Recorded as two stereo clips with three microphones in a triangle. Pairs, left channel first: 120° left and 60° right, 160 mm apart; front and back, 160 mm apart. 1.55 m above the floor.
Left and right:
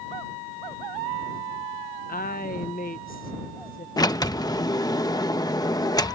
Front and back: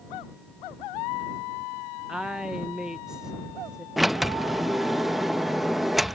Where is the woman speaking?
95° left.